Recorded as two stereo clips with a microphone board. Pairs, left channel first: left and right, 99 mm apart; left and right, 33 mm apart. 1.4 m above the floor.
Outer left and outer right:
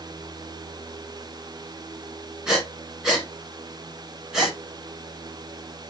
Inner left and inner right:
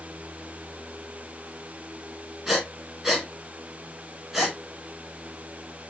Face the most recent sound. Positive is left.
turn(degrees=-5)  # may be behind; listen again after turning